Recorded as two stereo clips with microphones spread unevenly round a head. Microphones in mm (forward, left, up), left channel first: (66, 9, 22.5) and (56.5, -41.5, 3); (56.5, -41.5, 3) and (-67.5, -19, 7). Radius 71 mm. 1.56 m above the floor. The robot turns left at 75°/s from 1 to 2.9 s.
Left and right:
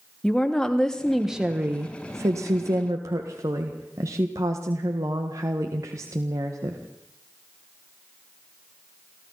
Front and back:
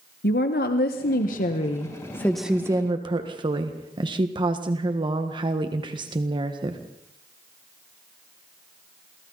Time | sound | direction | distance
0.2 | a woman speaking | 5° left | 1.5 m